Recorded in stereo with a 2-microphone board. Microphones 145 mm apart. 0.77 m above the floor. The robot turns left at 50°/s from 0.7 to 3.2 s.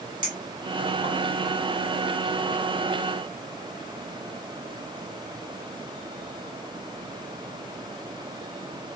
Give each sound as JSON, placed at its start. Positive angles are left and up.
{"t": 0.2, "sound": "a clink", "side_deg": -30, "distance_m": 1.4}